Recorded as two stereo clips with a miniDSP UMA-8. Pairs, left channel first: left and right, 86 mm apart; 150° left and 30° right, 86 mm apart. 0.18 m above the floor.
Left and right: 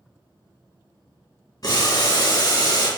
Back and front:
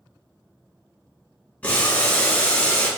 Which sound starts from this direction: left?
Boiling, at 1.6 s.